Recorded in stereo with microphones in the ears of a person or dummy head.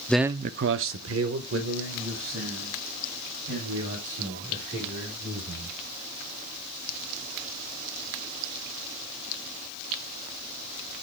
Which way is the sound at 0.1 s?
5° left (ahead or behind).